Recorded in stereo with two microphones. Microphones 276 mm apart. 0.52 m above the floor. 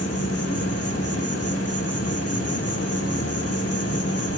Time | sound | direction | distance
0.0 | an insect | 55° left (ahead or behind) | 2.5 m